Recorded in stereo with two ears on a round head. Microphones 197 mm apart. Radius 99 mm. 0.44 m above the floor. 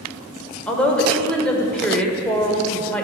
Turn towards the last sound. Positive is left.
turn(degrees=5)  # may be behind; listen again after turning